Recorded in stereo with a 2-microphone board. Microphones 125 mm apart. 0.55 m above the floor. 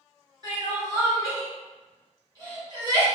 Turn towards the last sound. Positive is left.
turn(degrees=-30)  # may be behind; listen again after turning